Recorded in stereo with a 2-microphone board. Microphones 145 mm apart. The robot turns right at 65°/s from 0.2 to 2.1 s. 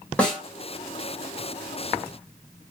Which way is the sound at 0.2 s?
10° left (ahead or behind).